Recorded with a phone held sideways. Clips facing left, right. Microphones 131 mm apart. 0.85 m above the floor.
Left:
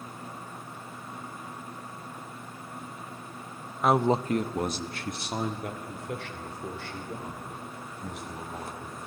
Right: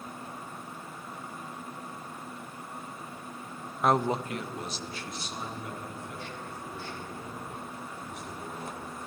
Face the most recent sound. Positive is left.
turn(degrees=80)